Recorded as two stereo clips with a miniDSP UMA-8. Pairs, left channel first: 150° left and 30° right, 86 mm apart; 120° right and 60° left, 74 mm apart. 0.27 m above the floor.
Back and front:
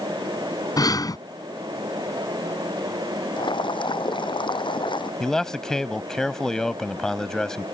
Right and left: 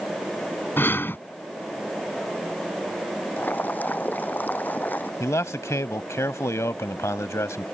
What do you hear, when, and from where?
0.8 s breathing: 175° right
3.4 s boiling: 175° left
5.2 s a man speaking: 130° right